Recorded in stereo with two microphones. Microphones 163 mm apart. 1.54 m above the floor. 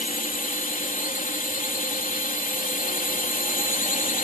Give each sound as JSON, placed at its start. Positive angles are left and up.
{"t": 0.0, "sound": "a drone", "side_deg": 55}